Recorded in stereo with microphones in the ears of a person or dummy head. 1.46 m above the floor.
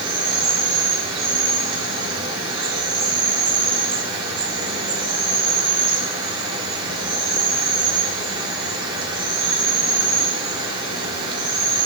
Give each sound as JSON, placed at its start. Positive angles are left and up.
{"t": 0.0, "sound": "an insect", "side_deg": -30, "distance_m": 2.0}